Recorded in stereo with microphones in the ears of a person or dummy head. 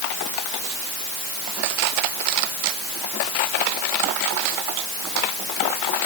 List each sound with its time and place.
Only background noise.